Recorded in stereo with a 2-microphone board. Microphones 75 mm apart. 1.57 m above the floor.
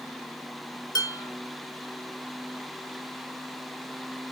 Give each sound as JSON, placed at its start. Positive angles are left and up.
{"t": 0.9, "sound": "dishes clattering", "side_deg": 50, "distance_m": 1.3}